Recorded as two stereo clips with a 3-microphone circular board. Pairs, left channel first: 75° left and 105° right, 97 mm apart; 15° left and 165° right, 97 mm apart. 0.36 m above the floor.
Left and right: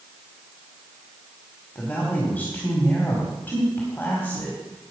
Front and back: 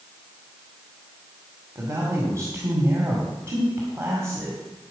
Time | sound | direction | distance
1.8 | a man speaking | 140° left | 2 m